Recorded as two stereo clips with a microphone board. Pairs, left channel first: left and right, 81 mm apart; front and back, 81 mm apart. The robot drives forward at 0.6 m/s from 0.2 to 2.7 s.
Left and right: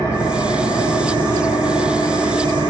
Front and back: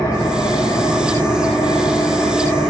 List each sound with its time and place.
0.0 s an engine running: 55° left, 4.5 m; by 2.7 s 75° left, 4 m